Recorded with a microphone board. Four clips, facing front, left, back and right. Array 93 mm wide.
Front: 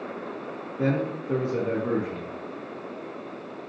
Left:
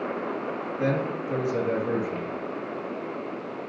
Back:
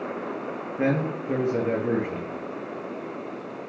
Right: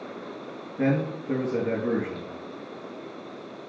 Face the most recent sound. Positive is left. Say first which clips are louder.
# right 2 dB, back 1 dB
turn(degrees=-145)